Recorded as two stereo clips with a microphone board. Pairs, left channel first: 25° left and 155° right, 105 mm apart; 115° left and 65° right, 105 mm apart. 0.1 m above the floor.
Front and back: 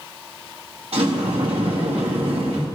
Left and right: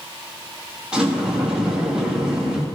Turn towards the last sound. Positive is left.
turn(degrees=-150)